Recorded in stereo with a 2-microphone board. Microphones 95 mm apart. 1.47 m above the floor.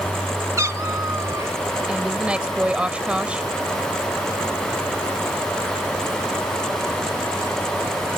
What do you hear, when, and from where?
0.6 s a cat meowing: 35° right (ahead or behind)
1.9 s a woman speaking: 10° right (ahead or behind)